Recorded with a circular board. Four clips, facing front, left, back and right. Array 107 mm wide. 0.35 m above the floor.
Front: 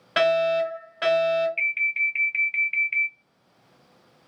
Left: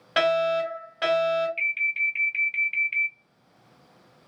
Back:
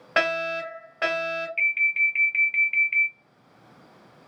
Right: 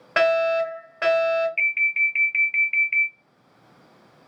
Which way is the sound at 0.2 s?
130° right.